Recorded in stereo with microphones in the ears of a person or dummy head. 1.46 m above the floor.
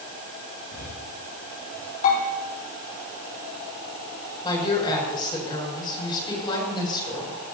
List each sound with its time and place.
0.7 s breathing: 60° left (ahead or behind), 3.5 m
2.0 s a bell: 45° left (ahead or behind), 4.5 m
4.4 s a woman speaking: 25° left (ahead or behind), 7 m